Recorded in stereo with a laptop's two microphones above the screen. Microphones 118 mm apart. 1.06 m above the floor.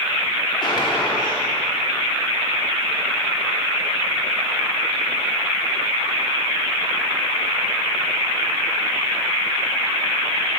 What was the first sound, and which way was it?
A gunshot, 40° left (ahead or behind).